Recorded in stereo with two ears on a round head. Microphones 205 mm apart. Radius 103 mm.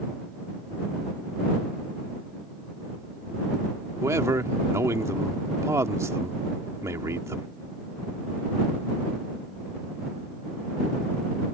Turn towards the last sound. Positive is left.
turn(degrees=-15)  # may be behind; listen again after turning